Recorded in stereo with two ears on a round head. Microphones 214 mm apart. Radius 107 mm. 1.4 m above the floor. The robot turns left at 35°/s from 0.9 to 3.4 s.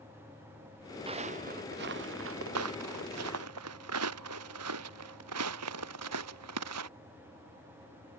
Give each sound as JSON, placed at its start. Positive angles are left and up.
{"t": 1.1, "sound": "footsteps", "side_deg": -25}